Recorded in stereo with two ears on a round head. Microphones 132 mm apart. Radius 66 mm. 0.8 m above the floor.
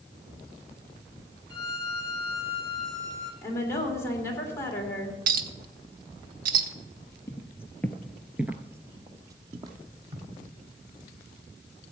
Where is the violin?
25° left (ahead or behind), 1.6 m.